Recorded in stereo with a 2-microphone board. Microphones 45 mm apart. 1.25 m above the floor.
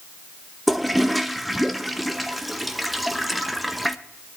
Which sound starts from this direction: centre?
A toilet flushing, at 0.7 s.